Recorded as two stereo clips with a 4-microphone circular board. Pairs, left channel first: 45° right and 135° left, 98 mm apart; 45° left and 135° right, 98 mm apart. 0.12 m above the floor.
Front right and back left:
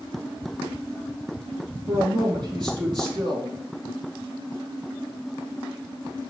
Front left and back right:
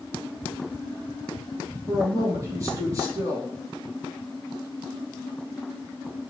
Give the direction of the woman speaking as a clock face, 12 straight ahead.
6 o'clock.